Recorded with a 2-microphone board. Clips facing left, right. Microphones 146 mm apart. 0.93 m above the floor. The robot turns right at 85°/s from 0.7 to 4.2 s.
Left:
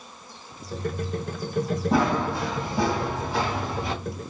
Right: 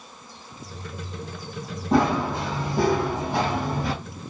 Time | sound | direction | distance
1.9 | running footsteps | 10° left (ahead or behind) | 2 m